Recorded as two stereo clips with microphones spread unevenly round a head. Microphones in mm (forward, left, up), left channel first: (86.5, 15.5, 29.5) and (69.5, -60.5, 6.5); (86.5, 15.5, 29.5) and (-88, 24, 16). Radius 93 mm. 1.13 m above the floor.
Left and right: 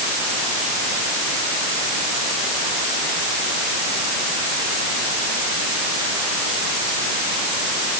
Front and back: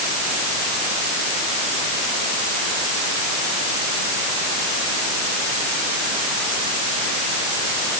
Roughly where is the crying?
No crying in this recording.